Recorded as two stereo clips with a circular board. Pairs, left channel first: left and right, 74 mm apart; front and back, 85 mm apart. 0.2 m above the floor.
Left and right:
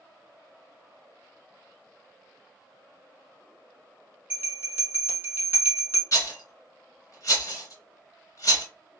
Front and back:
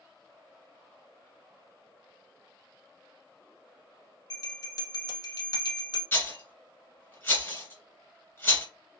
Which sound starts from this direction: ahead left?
A rattle, at 6.1 s.